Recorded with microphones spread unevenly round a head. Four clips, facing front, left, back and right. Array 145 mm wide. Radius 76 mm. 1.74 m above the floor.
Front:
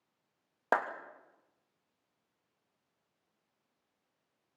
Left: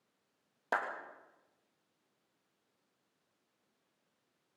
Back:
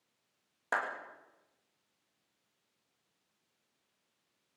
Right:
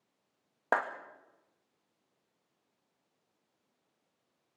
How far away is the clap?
About 3 m.